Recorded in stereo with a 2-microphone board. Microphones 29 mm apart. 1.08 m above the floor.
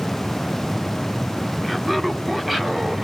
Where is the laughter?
5° right (ahead or behind), 2.5 m; by 3.0 s 20° right (ahead or behind), 3 m.